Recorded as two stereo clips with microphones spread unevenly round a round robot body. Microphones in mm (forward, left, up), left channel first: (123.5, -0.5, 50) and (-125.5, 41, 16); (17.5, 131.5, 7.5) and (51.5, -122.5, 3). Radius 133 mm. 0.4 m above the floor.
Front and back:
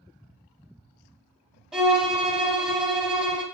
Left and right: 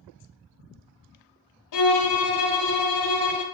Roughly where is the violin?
Left.